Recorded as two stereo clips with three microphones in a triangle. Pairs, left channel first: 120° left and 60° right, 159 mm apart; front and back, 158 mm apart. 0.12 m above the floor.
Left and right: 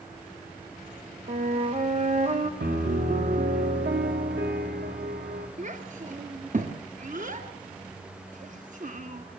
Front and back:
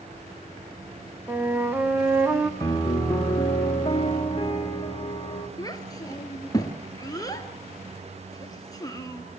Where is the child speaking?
60° right, 1.8 m.